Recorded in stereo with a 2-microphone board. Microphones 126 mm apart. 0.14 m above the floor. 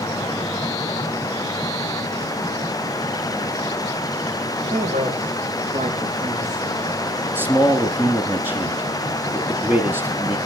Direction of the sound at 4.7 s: 60° right (ahead or behind).